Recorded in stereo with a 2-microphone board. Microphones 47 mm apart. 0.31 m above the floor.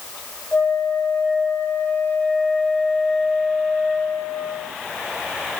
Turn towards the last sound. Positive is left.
turn(degrees=50)  # may be behind; listen again after turning